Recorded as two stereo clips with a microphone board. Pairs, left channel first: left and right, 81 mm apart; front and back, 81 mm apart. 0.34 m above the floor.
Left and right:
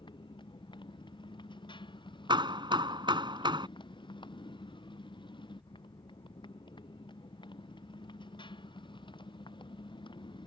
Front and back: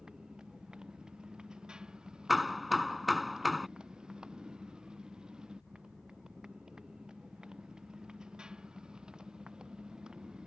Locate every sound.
0.0 s a motorcycle: 100° left
2.3 s hammering: 90° right